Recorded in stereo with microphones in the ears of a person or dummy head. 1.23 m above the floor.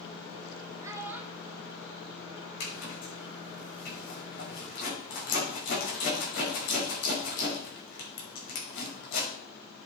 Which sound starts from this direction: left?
A zipper, at 2.6 s.